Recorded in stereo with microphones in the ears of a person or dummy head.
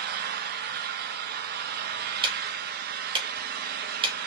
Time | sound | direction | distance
0.0 | an engine running | 55° right (ahead or behind) | 0.7 m
2.2 | ticking | 25° right (ahead or behind) | 0.9 m